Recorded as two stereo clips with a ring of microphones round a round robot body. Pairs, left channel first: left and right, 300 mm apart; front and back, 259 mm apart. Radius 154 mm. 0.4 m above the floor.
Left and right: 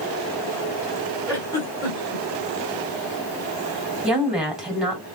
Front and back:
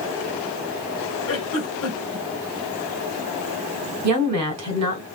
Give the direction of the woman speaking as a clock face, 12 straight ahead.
6 o'clock.